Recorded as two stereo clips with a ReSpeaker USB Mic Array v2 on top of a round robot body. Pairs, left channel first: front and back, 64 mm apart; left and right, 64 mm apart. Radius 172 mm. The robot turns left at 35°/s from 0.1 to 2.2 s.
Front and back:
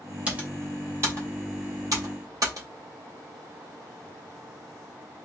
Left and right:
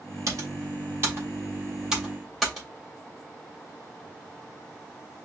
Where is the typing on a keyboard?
110° right, 3 m; by 2.7 s straight behind, 3 m.